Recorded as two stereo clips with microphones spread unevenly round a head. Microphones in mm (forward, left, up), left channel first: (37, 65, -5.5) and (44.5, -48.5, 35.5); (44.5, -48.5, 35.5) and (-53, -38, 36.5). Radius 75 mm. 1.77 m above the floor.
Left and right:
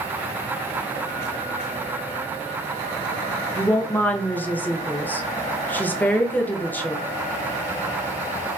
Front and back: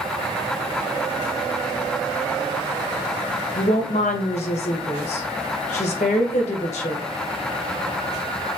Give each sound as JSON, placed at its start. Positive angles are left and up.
{"t": 3.5, "sound": "a woman speaking", "azimuth_deg": 10, "distance_m": 0.8}